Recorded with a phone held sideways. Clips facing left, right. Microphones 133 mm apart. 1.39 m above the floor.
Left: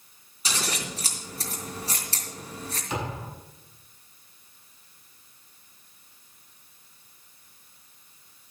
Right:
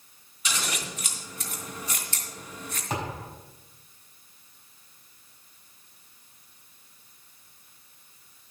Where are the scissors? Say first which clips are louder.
Left 2 dB; 35° left (ahead or behind), 2.5 m.